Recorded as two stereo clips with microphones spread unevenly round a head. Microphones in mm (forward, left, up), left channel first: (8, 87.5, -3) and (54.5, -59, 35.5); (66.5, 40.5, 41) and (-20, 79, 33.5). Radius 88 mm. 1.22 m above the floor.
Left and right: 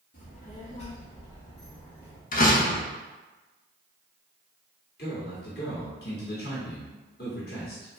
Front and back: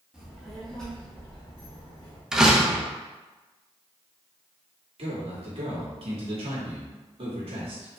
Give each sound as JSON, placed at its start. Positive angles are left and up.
{"t": 0.1, "sound": "a child speaking", "azimuth_deg": 75, "distance_m": 1.8}
{"t": 2.3, "sound": "a door slam", "azimuth_deg": 70, "distance_m": 1.2}
{"t": 5.0, "sound": "a man speaking", "azimuth_deg": 145, "distance_m": 2.0}